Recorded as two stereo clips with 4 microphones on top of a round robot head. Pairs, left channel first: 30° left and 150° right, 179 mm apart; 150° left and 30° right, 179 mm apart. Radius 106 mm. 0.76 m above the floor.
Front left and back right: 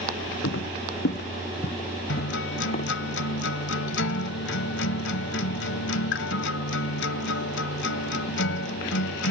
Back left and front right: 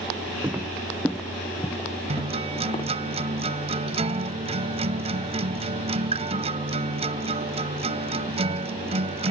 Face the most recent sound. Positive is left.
turn(degrees=25)